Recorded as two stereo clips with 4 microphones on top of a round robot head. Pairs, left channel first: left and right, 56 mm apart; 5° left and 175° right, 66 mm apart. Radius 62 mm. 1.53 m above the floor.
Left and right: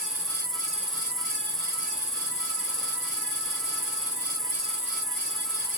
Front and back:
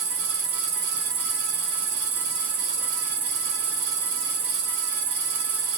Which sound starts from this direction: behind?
An insect, at 0.0 s.